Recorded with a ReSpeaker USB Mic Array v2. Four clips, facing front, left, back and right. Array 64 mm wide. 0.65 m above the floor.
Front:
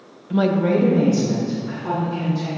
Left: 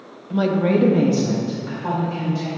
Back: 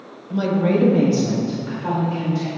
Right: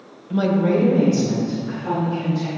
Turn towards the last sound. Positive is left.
turn(degrees=135)